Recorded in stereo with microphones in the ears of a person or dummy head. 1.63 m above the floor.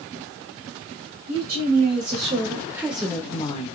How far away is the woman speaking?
About 1.4 m.